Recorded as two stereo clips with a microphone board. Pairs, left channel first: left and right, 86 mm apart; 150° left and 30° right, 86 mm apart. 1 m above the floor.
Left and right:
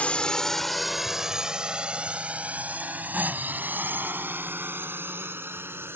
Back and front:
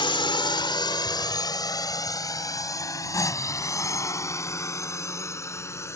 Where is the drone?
165° left; by 6.0 s 155° right.